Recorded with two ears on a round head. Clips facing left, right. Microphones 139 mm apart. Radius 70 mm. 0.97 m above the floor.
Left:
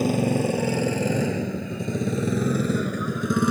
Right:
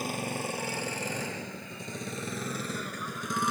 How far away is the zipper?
I don't hear a zipper.